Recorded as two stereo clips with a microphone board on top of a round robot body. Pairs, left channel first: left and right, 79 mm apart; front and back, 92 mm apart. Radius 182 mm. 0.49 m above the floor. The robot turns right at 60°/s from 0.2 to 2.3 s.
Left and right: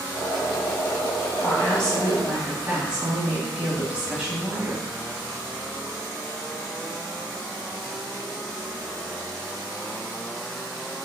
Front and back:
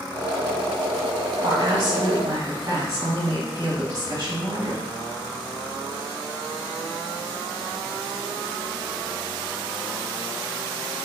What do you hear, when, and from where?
1.4 s a woman speaking: 150° left, 1.2 m; by 4.9 s 155° right, 1.2 m